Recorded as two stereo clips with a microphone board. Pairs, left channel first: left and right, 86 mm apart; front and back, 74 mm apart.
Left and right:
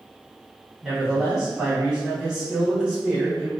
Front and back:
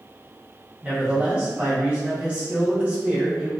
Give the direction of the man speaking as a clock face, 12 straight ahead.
5 o'clock.